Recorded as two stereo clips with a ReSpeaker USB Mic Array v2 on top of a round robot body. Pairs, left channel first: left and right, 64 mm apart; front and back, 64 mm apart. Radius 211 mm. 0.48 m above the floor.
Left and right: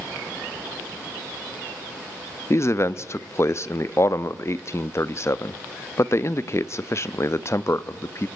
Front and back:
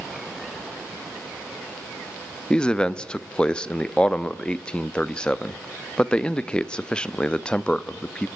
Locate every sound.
2.5 s a man speaking: 70° left, 1.2 m